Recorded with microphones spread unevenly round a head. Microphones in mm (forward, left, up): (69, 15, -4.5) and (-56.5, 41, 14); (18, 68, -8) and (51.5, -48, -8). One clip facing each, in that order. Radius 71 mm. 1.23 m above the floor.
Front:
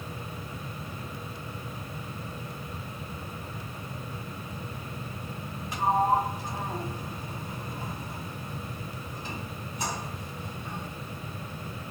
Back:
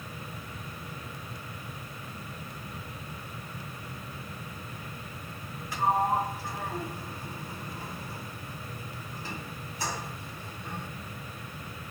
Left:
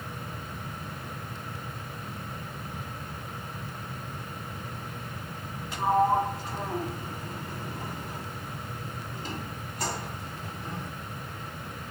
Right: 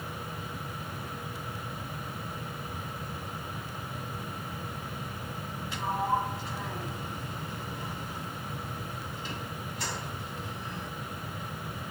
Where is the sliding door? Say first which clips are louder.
Front 2 dB, left 6 dB; 60° left, 2 m.